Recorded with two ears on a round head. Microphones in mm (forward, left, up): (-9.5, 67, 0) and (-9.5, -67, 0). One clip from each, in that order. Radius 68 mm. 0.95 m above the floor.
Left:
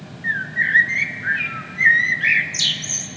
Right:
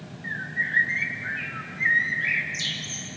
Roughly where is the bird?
Left.